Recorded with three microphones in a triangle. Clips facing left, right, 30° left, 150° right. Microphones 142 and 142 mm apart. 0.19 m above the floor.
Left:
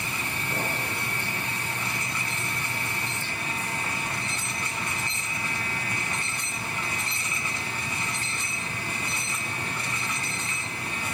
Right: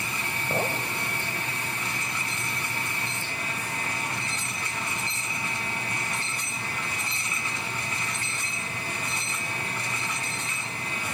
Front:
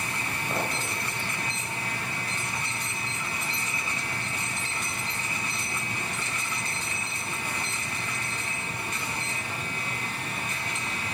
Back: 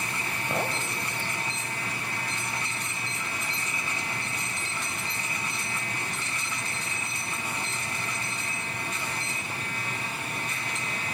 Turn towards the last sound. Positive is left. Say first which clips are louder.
# right 5 dB, back 1 dB
turn(degrees=-95)